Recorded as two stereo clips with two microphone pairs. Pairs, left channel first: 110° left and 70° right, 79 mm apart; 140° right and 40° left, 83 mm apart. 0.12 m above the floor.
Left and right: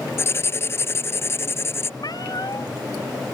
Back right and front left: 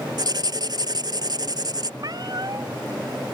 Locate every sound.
0.2 s writing: 60° left
2.0 s a cat meowing: 75° left